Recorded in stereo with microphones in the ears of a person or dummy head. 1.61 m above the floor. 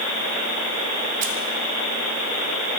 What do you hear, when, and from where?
1.2 s keys jangling: 40° right (ahead or behind), 0.9 m